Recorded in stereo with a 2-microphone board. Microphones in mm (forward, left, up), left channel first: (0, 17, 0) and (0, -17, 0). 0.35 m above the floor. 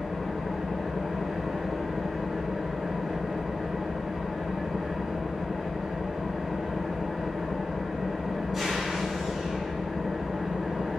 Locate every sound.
0.0 s an engine running: 15° right (ahead or behind), 3 m